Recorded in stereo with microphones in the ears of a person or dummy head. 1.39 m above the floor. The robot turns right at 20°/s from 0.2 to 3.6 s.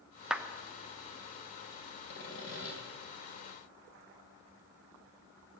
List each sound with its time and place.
0.3 s a clap: 5° right (ahead or behind), 0.9 m; by 0.4 s 10° right (ahead or behind), 0.9 m
2.1 s sawing: 70° left (ahead or behind), 3 m